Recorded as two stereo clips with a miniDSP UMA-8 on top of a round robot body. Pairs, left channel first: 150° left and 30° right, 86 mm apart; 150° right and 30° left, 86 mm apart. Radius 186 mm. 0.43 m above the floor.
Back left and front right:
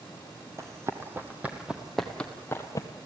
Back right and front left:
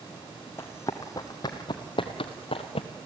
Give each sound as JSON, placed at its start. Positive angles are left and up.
{"t": 0.6, "sound": "running footsteps", "azimuth_deg": -85, "distance_m": 1.7}